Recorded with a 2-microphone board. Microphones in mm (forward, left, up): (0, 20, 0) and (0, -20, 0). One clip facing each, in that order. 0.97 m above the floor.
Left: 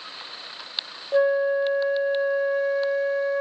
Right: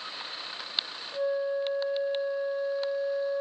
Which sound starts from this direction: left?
A flute, at 1.1 s.